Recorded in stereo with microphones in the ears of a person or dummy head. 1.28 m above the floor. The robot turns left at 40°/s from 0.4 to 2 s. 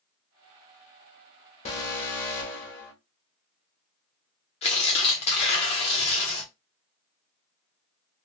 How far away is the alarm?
About 1.4 m.